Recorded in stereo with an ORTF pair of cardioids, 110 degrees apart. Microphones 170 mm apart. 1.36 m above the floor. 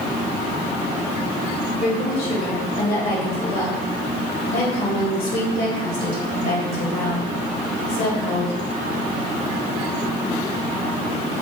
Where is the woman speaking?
65° left, 1.9 m.